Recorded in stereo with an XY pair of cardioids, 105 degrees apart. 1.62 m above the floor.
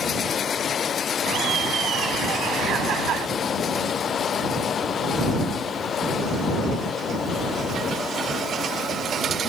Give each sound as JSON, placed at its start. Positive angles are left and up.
{"t": 1.3, "sound": "laughter", "azimuth_deg": -65}